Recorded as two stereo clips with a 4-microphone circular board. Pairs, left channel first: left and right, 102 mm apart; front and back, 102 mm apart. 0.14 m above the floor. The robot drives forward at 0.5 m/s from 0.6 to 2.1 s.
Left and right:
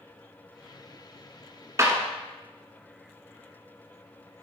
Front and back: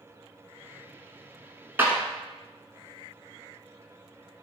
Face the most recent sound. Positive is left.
turn(degrees=-135)